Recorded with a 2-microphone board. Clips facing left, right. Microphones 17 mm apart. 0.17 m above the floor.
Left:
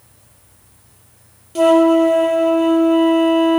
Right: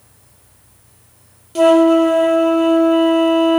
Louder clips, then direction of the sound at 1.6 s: Right 1 dB; 15° right (ahead or behind).